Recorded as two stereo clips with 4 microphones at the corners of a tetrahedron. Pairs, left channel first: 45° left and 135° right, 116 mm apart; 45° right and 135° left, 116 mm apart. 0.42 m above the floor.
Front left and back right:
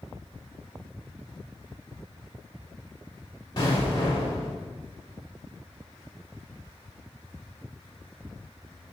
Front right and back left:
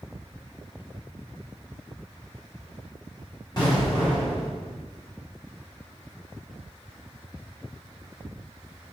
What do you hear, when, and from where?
3.6 s an explosion: straight ahead, 1.8 m